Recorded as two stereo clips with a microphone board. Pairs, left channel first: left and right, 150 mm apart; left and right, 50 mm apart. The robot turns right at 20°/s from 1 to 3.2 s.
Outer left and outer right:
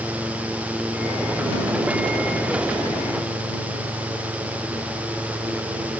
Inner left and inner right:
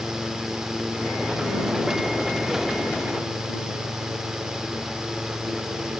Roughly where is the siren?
I don't hear a siren.